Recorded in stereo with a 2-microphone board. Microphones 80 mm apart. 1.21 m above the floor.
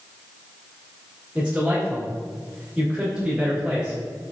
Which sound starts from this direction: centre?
A man speaking, at 1.4 s.